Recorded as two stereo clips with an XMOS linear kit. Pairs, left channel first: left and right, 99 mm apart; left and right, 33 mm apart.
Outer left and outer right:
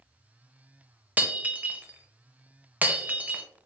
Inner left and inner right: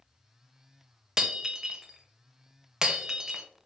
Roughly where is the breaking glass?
Centre.